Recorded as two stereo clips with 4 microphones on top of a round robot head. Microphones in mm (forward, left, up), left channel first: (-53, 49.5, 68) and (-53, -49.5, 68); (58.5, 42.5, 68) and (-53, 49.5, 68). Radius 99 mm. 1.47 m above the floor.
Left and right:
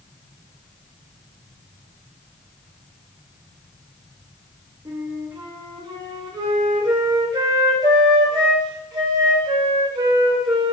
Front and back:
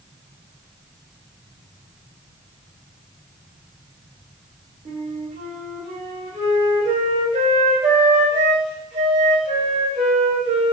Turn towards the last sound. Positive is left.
turn(degrees=-140)